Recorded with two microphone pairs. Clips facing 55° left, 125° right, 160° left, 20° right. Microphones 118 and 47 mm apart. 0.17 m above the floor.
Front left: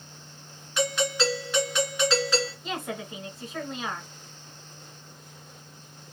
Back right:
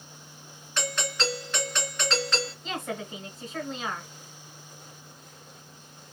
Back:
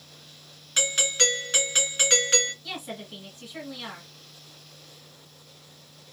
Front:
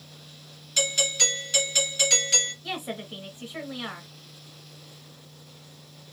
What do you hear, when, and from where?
0.8 s a doorbell: 130° left, 2.0 m
2.6 s a woman speaking: 25° right, 1.3 m